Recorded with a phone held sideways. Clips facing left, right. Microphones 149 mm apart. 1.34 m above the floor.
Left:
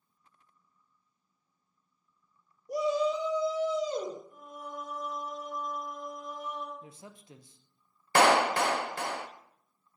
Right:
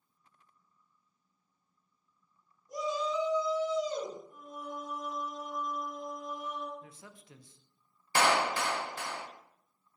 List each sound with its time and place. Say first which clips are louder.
2.7 s a shout: left 5 dB; 75° left (ahead or behind), 1.7 m; by 4.2 s 45° left (ahead or behind), 2.5 m
4.3 s singing: even; 50° right (ahead or behind), 3.5 m
6.8 s a man speaking: left 3 dB; 25° left (ahead or behind), 0.6 m
8.2 s a clap: left 5 dB; 60° left (ahead or behind), 0.7 m